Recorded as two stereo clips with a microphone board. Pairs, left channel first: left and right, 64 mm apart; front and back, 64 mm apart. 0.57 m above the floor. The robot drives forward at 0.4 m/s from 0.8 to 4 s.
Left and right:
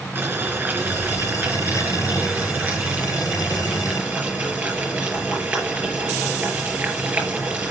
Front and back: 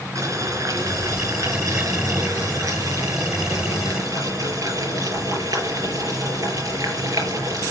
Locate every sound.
0.1 s boiling: 150° right, 4 m; by 7.7 s 155° right, 5 m